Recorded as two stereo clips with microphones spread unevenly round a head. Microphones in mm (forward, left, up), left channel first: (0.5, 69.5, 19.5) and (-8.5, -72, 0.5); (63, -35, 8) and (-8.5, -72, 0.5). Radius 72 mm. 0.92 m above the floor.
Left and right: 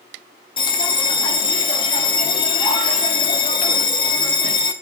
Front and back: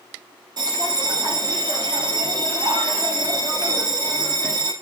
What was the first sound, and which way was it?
A bell, 145° left.